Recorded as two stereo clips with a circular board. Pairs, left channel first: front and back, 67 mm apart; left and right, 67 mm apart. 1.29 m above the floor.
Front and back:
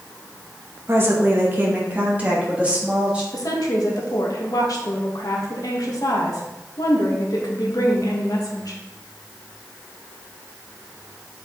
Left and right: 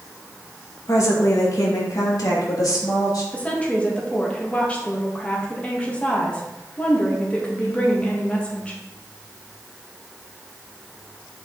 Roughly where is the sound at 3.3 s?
Ahead.